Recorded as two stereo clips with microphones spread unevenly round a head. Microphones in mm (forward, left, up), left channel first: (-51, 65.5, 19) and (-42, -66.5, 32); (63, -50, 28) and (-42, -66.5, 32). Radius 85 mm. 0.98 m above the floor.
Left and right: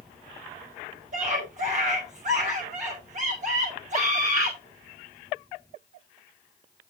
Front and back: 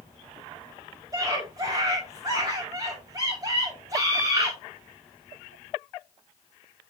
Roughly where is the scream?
Behind right.